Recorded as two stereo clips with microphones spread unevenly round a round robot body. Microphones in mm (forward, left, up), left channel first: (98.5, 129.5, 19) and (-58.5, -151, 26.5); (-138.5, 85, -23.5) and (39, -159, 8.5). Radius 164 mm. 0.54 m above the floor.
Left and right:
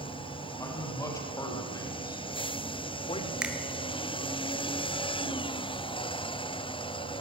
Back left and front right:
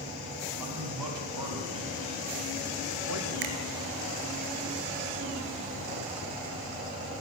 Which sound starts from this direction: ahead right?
A finger snap, at 3.4 s.